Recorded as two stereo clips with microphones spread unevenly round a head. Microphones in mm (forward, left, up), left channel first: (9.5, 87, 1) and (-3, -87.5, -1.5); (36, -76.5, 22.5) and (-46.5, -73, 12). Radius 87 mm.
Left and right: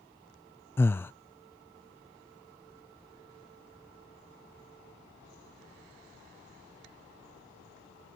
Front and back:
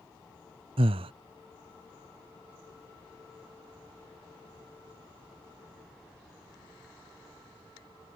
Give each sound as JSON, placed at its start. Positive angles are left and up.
{"t": 0.8, "sound": "breathing", "azimuth_deg": 165}